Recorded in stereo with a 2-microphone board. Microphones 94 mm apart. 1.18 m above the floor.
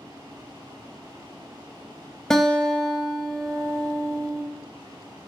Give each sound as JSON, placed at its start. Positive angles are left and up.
{"t": 2.3, "sound": "a guitar", "side_deg": 5, "distance_m": 0.6}